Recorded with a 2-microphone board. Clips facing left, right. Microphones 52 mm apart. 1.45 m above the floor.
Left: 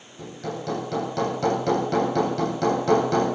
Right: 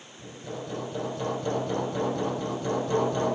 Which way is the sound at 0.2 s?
80° left.